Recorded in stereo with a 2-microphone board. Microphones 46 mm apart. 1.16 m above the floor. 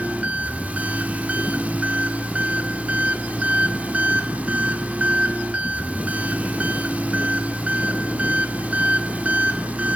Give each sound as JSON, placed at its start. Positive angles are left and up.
{"t": 0.0, "sound": "an engine running", "side_deg": -35, "distance_m": 1.2}